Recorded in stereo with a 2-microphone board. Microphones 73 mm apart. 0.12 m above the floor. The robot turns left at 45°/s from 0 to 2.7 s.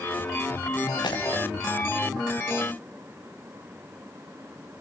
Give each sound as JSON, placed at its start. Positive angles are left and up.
{"t": 1.0, "sound": "breaking glass", "side_deg": 85, "distance_m": 4.0}